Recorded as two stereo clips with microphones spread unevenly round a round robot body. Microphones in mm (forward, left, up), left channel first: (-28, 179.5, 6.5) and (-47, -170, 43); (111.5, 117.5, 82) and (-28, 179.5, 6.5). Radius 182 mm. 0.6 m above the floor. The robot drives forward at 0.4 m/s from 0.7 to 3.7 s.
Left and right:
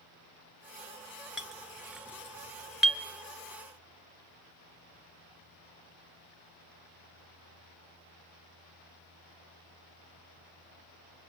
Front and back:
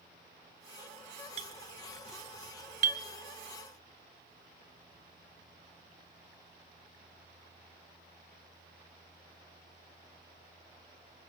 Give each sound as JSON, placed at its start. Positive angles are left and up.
{"t": 1.4, "sound": "a clink", "azimuth_deg": 175, "distance_m": 1.3}